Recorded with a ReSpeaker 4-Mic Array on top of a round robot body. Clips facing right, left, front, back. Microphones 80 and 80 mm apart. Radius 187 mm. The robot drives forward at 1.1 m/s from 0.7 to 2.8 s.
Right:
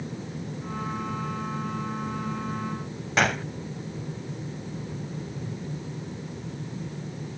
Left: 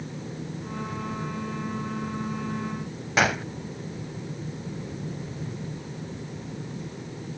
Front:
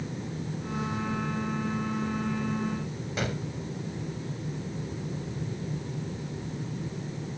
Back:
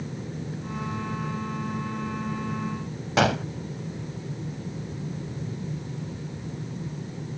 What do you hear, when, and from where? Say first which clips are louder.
3.2 s a gunshot: left 1 dB, back 11 dB; 175° left